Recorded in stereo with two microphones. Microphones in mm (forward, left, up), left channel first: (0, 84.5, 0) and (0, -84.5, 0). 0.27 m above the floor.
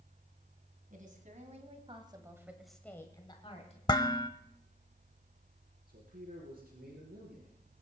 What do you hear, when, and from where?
0.9 s a woman speaking: 55° right (ahead or behind), 3 m; by 3.8 s 45° left (ahead or behind), 2 m
3.9 s dishes clattering: 25° left (ahead or behind), 0.7 m
5.9 s a man speaking: 75° right (ahead or behind), 4 m